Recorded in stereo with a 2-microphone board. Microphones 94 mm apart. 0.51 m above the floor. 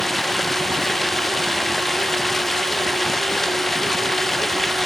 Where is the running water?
5° left (ahead or behind).